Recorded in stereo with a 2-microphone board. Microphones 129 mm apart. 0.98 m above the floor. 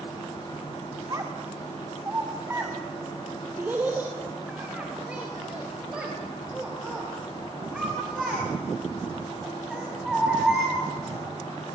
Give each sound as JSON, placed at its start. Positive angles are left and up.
{"t": 1.1, "sound": "a child speaking", "side_deg": -30, "distance_m": 2.0}